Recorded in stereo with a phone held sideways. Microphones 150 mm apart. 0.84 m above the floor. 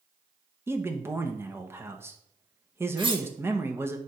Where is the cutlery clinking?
35° right (ahead or behind), 1.5 m.